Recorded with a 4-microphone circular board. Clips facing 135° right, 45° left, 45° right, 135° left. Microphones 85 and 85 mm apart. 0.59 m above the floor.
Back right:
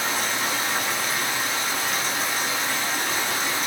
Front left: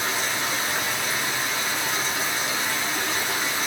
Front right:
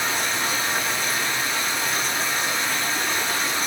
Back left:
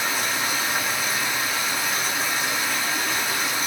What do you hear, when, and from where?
0.0 s running water: 140° right, 5.5 m